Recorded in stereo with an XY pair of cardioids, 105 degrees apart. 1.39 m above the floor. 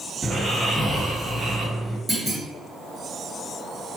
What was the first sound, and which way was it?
Snoring, straight ahead.